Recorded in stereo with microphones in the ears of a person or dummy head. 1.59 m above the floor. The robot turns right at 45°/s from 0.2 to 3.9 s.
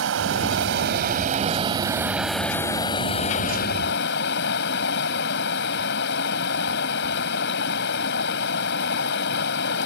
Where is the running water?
95° right; by 9.9 s 70° left.